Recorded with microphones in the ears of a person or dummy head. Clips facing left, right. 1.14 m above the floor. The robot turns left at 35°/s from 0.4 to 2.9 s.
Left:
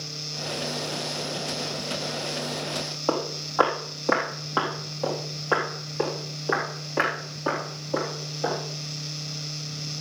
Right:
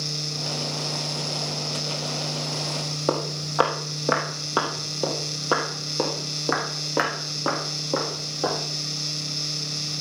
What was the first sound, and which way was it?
Footsteps, 30° right (ahead or behind).